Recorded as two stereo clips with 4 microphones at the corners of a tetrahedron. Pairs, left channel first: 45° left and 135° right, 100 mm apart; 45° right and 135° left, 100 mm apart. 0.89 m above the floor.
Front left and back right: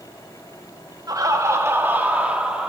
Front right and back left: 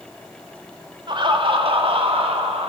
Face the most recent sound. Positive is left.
turn(degrees=145)